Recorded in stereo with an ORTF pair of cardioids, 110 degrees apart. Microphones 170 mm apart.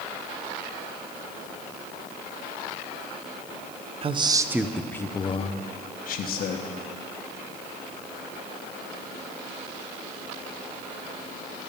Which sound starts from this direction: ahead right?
A man speaking, at 4.0 s.